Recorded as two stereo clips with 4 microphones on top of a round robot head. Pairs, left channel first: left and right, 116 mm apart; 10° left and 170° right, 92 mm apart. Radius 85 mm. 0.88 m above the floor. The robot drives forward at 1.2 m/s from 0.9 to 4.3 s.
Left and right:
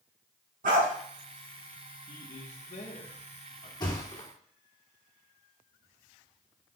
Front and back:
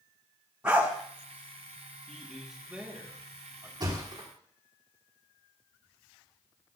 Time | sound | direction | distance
0.6 | a dog barking | 90° right | 4.5 m
2.1 | a man speaking | 90° left | 2.0 m
3.8 | a thud | 150° left | 4.5 m